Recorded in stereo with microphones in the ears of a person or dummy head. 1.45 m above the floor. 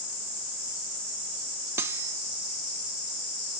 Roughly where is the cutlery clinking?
Centre.